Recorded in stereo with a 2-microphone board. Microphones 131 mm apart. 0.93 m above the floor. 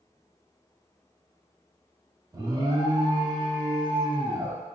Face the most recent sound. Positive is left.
turn(degrees=-30)  # may be behind; listen again after turning